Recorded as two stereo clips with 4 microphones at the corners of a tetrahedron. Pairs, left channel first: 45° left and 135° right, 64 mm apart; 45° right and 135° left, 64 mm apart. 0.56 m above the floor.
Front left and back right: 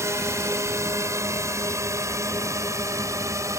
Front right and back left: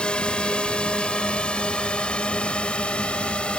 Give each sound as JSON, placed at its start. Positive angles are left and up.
{"t": 0.0, "sound": "a drone", "azimuth_deg": -115}